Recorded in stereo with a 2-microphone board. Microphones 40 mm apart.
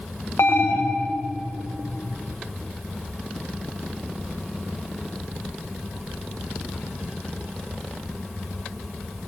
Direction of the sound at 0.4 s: 85° left.